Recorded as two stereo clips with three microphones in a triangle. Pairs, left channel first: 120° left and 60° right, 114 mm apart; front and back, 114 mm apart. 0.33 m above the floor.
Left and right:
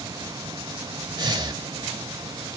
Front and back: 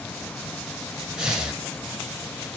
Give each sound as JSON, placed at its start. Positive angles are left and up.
{"t": 1.2, "sound": "breathing", "azimuth_deg": -100, "distance_m": 0.6}